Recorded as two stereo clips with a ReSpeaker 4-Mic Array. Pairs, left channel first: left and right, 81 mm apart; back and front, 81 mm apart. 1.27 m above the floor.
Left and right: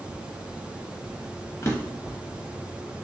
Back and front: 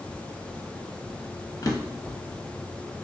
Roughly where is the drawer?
Behind left.